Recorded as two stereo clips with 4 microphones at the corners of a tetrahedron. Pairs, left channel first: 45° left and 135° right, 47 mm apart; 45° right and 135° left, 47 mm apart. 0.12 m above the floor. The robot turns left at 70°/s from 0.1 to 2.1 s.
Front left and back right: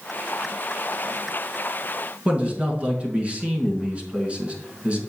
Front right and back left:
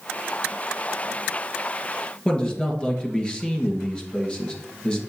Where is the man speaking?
95° right, 1.9 m.